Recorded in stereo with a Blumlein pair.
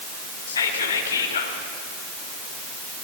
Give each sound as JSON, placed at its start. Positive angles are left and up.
{"t": 0.5, "sound": "whispering", "azimuth_deg": 70, "distance_m": 2.0}